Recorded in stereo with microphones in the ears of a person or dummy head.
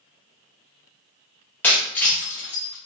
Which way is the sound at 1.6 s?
5° left (ahead or behind).